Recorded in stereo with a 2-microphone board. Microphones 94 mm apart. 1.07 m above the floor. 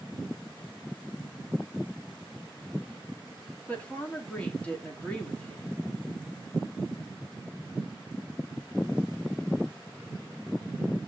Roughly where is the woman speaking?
Centre.